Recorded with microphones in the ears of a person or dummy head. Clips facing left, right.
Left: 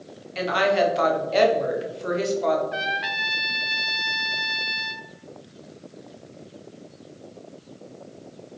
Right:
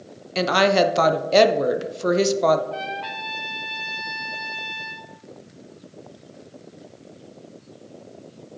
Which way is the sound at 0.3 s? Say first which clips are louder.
Right 3 dB; 60° right (ahead or behind).